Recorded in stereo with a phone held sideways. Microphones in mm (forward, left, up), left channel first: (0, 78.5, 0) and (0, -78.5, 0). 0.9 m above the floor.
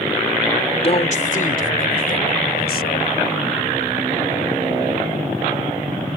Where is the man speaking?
40° left (ahead or behind); by 3.1 s 85° left.